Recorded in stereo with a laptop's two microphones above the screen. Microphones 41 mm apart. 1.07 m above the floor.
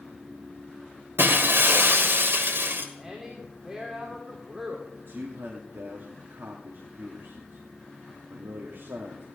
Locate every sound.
1.2 s breaking glass: 70° right (ahead or behind), 1.6 m
3.0 s a woman speaking: 10° right (ahead or behind), 2.5 m
5.1 s a man speaking: 70° right (ahead or behind), 2.5 m